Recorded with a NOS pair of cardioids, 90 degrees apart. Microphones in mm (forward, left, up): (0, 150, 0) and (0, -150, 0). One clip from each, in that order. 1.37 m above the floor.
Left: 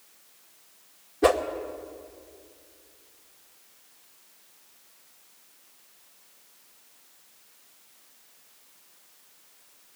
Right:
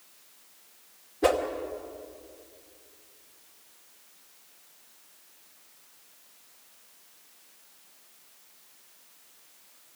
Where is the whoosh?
25° left, 2.5 m.